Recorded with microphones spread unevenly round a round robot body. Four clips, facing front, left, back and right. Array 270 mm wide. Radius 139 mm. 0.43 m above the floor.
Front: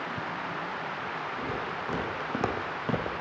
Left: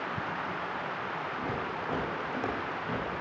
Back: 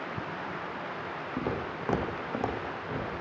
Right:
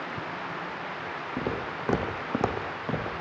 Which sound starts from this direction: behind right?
Footsteps, at 1.4 s.